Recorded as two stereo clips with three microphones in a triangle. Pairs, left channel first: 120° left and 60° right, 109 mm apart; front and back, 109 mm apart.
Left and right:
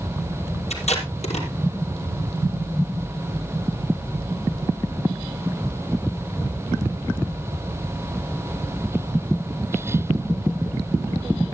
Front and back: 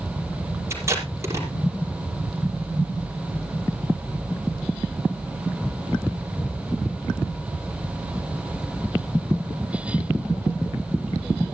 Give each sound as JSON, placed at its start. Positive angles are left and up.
{"t": 0.7, "sound": "tape being pulled", "azimuth_deg": 115, "distance_m": 5.0}